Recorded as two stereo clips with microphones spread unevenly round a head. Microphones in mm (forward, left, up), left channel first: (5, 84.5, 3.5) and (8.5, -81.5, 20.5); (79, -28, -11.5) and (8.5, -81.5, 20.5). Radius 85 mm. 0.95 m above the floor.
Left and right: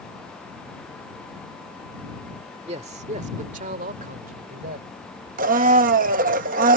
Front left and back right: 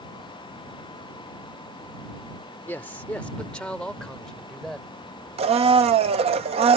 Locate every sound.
2.7 s a man speaking: 30° right; by 4.9 s 50° right
5.4 s a blender: 130° right